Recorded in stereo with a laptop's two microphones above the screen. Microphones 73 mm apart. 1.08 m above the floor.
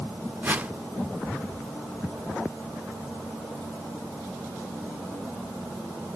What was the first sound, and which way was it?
A whoosh, 25° right (ahead or behind).